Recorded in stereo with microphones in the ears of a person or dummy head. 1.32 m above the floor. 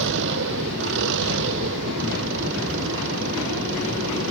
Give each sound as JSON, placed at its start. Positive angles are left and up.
{"t": 0.0, "sound": "an engine running", "side_deg": -70}